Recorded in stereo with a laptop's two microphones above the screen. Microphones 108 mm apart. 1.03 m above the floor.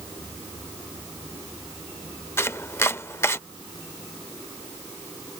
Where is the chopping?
25° left (ahead or behind).